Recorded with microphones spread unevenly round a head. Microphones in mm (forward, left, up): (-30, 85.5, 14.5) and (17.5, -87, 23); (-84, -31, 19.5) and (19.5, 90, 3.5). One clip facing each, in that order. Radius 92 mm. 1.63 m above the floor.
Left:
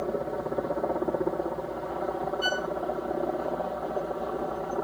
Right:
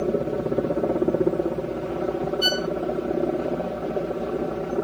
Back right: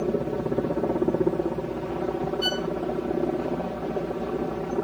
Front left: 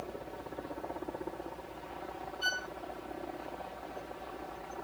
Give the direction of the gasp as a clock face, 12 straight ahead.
I don't hear a gasp.